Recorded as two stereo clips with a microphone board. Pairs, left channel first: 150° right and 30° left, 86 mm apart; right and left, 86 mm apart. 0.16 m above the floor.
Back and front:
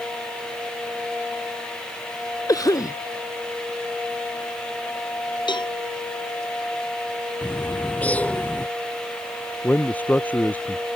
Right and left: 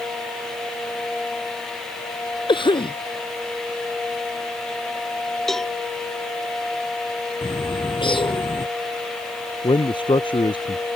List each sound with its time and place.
2.5 s a cough: 105° right
5.5 s a cowbell: 175° right
7.4 s a bird: 75° right
9.6 s a man speaking: 80° right